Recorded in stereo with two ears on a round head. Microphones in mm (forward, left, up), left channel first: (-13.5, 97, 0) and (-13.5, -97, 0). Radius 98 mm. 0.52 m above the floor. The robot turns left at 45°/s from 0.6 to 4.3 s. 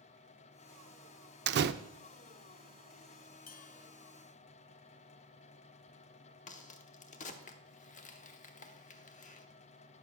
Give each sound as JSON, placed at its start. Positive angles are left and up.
{"t": 1.5, "sound": "a door slam", "side_deg": -50, "distance_m": 0.5}
{"t": 3.5, "sound": "a bell", "side_deg": 40, "distance_m": 0.8}
{"t": 6.5, "sound": "a crack", "side_deg": 35, "distance_m": 0.9}